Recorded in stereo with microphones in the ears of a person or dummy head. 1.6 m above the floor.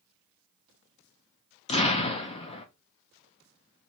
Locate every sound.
1.7 s an explosion: 25° left (ahead or behind), 0.5 m